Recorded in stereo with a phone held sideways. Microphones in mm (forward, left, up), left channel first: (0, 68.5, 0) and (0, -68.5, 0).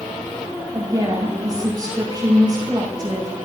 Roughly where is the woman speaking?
Right.